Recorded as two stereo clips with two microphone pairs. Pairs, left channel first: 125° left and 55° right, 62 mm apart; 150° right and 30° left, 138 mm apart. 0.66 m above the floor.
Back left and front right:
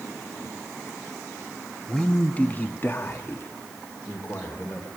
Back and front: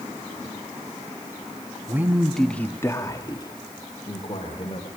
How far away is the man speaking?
About 0.8 m.